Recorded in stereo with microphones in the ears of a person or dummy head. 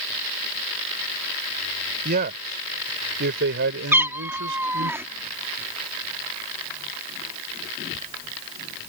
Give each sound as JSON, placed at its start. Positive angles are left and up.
{"t": 2.0, "sound": "a man speaking", "side_deg": -55}
{"t": 3.9, "sound": "a cat meowing", "side_deg": -15}